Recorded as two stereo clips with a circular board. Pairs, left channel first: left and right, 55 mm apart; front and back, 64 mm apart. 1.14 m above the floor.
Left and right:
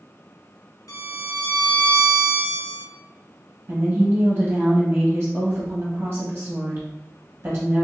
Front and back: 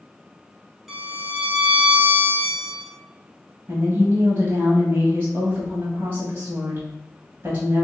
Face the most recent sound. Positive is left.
turn(degrees=-140)